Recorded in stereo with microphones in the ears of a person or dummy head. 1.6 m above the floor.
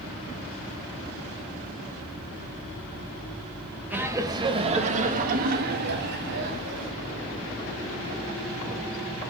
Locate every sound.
3.9 s laughter: 10° right (ahead or behind), 2.5 m; by 6.9 s 70° right (ahead or behind), 5 m